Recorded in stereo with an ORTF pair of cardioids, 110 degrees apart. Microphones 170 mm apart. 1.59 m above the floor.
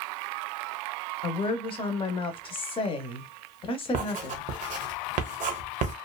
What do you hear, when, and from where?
1.2 s a woman speaking: 30° left, 0.9 m
3.9 s writing: 50° right, 0.9 m